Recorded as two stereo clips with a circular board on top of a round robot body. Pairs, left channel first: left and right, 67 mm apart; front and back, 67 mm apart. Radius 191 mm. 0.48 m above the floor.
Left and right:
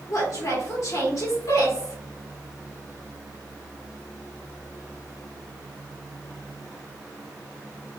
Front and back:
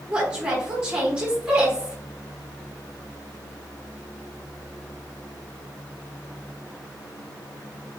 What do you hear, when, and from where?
0.1 s a woman speaking: 105° left, 1.6 m